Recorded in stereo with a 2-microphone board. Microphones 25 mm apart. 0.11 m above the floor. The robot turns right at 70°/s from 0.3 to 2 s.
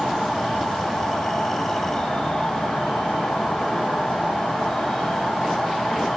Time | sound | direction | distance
0.0 | an insect | 25° left | 1.1 m